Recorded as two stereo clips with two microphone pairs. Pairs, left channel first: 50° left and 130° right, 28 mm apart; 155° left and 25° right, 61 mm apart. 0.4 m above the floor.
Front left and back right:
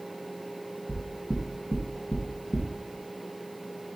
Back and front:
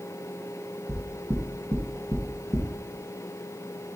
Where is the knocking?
40° right, 3 m.